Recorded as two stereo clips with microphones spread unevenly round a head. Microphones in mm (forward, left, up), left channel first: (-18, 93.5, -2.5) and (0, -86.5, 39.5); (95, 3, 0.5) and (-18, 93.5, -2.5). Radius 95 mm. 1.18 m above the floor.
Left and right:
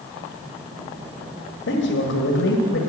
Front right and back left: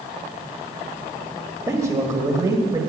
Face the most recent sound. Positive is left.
turn(degrees=75)